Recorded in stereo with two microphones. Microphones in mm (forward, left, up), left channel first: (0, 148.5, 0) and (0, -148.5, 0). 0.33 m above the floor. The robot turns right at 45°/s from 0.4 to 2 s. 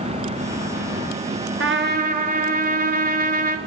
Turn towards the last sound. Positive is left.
turn(degrees=-30)  # may be behind; listen again after turning